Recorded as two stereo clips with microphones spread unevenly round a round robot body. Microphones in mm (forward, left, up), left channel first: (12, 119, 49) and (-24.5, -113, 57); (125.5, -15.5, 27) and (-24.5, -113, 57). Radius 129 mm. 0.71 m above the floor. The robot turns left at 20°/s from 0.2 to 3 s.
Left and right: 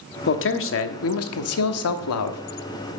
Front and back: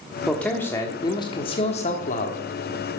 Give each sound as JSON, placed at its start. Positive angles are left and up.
{"t": 0.3, "sound": "a man speaking", "azimuth_deg": 115, "distance_m": 1.2}